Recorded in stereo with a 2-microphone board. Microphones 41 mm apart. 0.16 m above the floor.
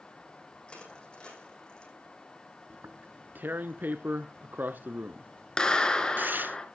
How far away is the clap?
About 2.0 m.